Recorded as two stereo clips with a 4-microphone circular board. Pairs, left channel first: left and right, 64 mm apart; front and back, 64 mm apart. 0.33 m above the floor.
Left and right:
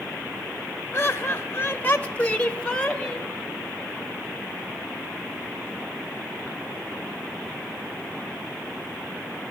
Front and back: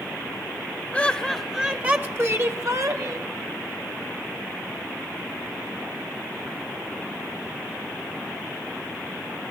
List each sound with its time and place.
0.9 s laughter: 60° left, 1.2 m; by 3.3 s 165° left, 2 m